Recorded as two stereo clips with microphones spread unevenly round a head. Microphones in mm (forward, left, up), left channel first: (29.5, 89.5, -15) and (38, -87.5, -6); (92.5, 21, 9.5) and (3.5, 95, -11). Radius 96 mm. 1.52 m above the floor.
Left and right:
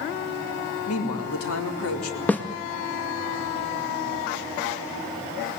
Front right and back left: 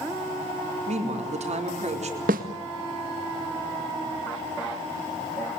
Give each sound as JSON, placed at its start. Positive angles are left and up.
{"t": 0.9, "sound": "a woman speaking", "azimuth_deg": 115, "distance_m": 4.0}
{"t": 2.3, "sound": "a snare drum", "azimuth_deg": 175, "distance_m": 1.9}